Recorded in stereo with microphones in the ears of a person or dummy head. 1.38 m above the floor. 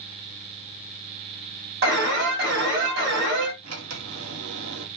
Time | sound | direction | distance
1.8 | an alarm | 50° right (ahead or behind) | 2.5 m
3.6 | a sliding door | 85° right | 1.2 m